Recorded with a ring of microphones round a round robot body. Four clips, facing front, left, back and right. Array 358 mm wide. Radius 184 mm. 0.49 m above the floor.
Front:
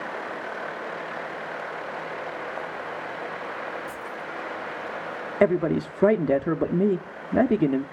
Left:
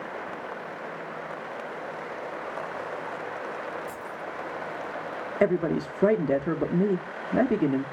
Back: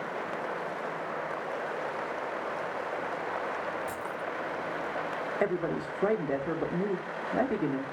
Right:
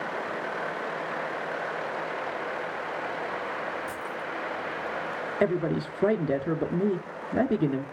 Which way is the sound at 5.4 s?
10° left.